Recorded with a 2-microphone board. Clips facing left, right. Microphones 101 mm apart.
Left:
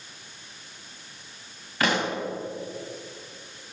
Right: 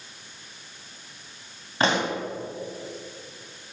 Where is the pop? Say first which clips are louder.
Right 2 dB; 30° right (ahead or behind), 1.9 m.